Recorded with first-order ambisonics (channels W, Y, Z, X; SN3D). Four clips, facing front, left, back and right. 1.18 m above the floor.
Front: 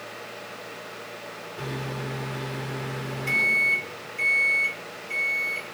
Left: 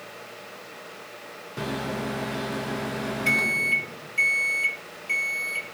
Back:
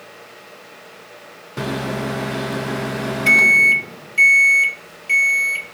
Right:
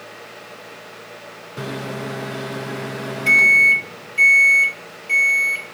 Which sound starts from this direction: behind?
A microwave, at 1.6 s.